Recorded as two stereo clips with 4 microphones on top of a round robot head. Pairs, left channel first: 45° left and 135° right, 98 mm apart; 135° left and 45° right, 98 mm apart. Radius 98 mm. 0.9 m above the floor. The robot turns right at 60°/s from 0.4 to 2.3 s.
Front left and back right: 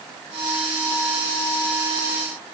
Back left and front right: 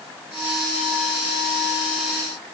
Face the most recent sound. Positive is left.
No sound to turn to.